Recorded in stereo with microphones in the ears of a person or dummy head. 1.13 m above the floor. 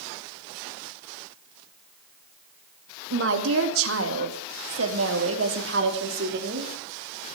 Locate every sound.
3.1 s a woman speaking: 75° right (ahead or behind), 1.9 m; by 6.7 s 55° right (ahead or behind), 3 m